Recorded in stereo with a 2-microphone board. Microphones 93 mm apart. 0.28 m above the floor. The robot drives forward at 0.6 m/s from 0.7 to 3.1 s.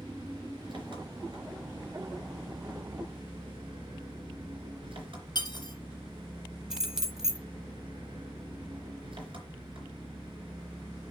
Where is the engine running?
65° right (ahead or behind), 3.5 m; by 11.1 s 75° right (ahead or behind), 3 m.